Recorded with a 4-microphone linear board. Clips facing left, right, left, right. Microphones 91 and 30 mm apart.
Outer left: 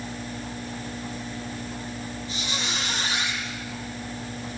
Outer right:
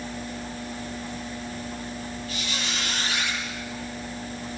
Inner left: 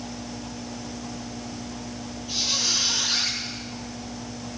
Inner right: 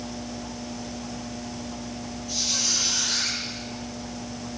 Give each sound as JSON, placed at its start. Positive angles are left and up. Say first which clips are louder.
{"t": 2.3, "sound": "a squeak", "louder": "outer left 2 dB, inner left 2 dB", "side_deg": 20, "distance_m": 7.0}